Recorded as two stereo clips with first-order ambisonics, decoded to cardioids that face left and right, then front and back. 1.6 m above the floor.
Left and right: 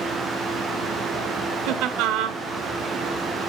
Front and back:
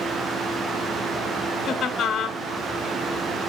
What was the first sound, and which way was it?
Laughter, 55° right.